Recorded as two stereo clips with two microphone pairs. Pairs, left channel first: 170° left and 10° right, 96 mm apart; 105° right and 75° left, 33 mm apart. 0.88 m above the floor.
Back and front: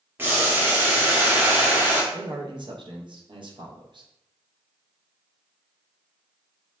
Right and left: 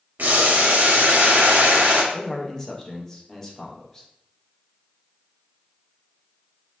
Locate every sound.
0.2 s boiling: 60° left, 0.5 m
2.1 s a man speaking: 35° right, 0.5 m